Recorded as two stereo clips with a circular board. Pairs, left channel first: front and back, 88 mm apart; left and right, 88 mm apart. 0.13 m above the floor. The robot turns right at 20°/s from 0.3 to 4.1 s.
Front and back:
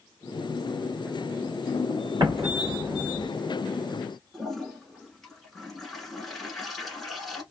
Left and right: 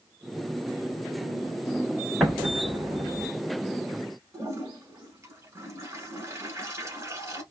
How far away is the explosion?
About 1.8 m.